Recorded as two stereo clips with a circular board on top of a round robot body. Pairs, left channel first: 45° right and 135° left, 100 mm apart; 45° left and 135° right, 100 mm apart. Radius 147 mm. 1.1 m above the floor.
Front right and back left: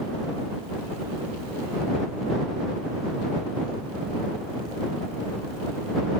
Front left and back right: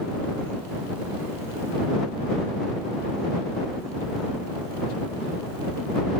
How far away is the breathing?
I don't hear breathing.